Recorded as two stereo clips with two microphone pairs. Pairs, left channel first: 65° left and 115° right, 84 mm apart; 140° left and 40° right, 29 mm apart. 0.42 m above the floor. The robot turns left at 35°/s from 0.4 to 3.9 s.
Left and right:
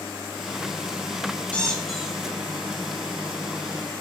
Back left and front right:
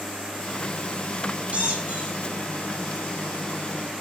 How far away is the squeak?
About 0.7 m.